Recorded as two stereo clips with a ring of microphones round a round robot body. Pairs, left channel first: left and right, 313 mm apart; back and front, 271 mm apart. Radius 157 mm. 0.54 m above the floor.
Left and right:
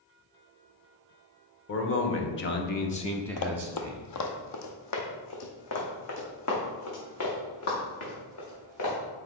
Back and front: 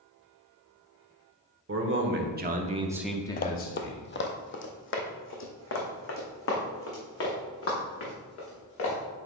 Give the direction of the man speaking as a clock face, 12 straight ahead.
11 o'clock.